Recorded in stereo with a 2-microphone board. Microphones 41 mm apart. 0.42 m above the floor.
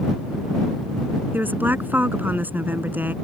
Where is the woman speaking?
50° right (ahead or behind).